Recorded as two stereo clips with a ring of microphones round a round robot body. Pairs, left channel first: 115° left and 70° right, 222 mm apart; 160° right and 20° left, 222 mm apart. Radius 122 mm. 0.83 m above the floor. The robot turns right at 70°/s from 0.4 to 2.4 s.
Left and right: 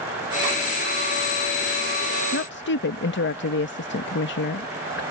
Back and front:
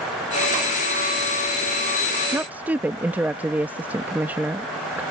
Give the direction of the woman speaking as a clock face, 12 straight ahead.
9 o'clock.